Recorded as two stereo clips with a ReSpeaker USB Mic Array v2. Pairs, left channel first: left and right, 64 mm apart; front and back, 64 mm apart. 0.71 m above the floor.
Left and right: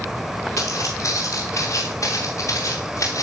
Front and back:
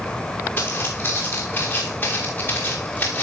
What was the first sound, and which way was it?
Footsteps, 50° left.